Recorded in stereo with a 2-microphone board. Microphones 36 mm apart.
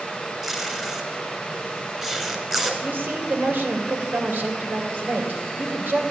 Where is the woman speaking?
70° right (ahead or behind), 3 m.